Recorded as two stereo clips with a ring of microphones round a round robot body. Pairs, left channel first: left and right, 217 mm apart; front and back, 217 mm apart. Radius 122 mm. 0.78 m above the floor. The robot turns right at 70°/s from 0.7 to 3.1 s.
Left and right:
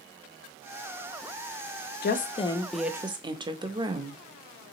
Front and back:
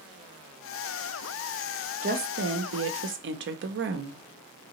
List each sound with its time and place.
2.0 s a woman speaking: 125° left, 0.7 m; by 4.2 s 155° right, 0.7 m